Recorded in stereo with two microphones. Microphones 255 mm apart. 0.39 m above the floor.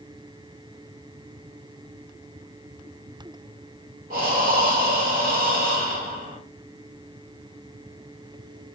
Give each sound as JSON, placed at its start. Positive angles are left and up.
{"t": 4.1, "sound": "breathing", "side_deg": -35, "distance_m": 1.3}